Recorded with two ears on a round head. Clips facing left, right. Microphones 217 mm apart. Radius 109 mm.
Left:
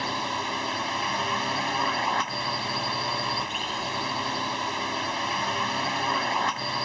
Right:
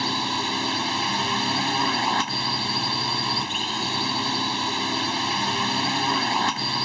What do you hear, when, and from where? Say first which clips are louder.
0.0 s a drone: right 4 dB; 55° right (ahead or behind)